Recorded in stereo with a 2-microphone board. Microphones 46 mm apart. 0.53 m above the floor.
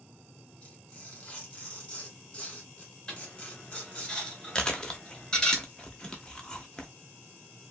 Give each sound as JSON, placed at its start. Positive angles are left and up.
{"t": 0.6, "sound": "tearing paper", "side_deg": 25, "distance_m": 1.5}
{"t": 3.1, "sound": "a dropped coin", "side_deg": 15, "distance_m": 1.5}
{"t": 4.5, "sound": "chewing", "side_deg": 20, "distance_m": 0.6}